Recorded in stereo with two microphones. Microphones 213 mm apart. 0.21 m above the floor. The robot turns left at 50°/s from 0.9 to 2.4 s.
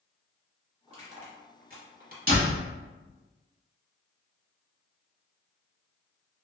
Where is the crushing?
25° right (ahead or behind), 1.1 m; by 2.2 s 40° right (ahead or behind), 1.1 m.